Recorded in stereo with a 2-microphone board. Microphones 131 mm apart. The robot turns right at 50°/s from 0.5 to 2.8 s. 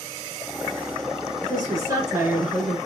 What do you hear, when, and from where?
1.4 s a woman speaking: 75° right, 1.3 m; by 2.8 s 5° right, 1.3 m